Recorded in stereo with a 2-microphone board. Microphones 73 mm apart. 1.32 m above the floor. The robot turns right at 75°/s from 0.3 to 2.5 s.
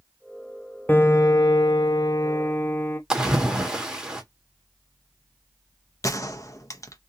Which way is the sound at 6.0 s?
45° left (ahead or behind).